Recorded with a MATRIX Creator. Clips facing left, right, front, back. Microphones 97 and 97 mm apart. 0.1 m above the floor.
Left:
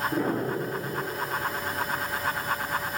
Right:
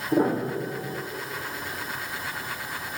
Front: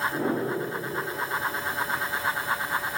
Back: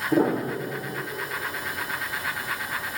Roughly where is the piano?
Behind right.